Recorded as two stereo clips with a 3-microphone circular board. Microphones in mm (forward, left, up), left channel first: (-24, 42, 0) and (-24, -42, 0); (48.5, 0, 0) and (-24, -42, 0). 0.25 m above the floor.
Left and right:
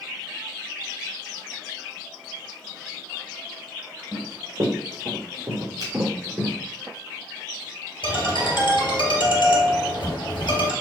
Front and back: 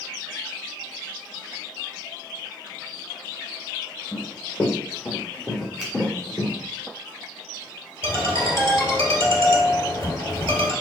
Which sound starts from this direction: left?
A ringtone, at 8.0 s.